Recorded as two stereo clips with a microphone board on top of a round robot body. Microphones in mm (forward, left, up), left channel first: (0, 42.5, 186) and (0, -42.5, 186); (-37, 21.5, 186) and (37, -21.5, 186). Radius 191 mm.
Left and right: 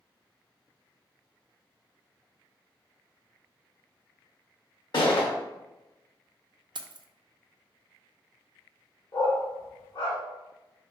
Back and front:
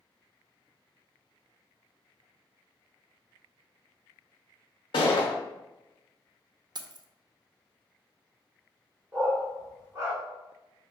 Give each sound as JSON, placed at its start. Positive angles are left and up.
{"t": 4.9, "sound": "a gunshot", "azimuth_deg": 125, "distance_m": 0.5}
{"t": 6.8, "sound": "keys jangling", "azimuth_deg": -65, "distance_m": 0.5}
{"t": 9.1, "sound": "a dog barking", "azimuth_deg": 35, "distance_m": 0.9}